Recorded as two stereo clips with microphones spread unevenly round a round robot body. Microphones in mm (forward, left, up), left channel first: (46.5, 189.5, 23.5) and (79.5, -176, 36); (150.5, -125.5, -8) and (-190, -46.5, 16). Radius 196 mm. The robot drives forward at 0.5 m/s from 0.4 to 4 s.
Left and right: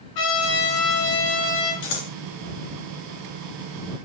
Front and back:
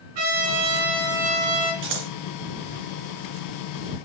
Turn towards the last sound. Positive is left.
turn(degrees=155)